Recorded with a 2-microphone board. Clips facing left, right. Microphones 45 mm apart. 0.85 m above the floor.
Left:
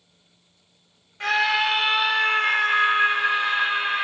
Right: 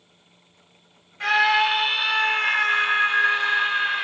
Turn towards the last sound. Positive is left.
turn(degrees=15)  # may be behind; listen again after turning